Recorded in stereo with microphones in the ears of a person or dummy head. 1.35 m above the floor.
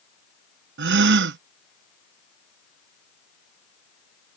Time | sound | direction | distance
0.8 | a gasp | 60° right (ahead or behind) | ?